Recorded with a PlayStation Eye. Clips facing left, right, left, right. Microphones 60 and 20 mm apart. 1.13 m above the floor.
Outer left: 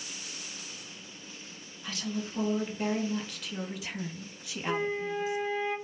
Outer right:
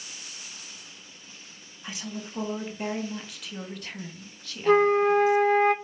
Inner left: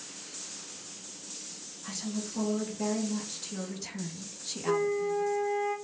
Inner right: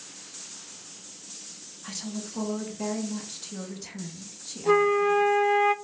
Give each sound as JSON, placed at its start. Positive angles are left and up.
{"t": 1.8, "sound": "a woman speaking", "side_deg": -20, "distance_m": 2.5}
{"t": 4.7, "sound": "a flute", "side_deg": -70, "distance_m": 0.6}